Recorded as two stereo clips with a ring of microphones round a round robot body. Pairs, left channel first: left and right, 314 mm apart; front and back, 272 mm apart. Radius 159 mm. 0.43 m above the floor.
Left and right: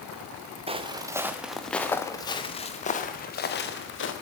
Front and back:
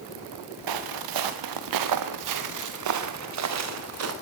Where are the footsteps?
165° right, 3.5 m; by 4.1 s 145° left, 5 m.